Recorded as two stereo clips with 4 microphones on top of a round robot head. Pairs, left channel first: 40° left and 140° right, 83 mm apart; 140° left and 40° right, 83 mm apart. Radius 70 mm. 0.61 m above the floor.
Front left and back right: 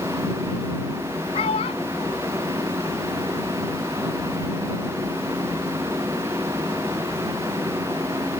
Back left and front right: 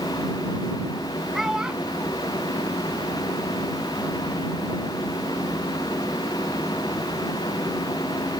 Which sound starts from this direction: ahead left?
A child speaking, at 1.3 s.